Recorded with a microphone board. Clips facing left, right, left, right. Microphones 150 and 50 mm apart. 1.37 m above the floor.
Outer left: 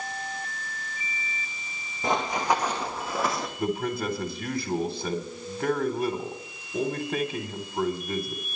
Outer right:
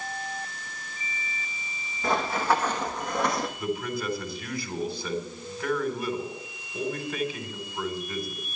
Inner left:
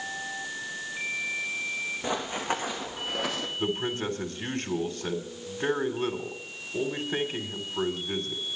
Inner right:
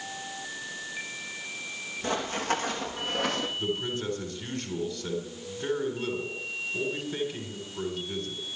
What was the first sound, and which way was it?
Running footsteps, 20° left (ahead or behind).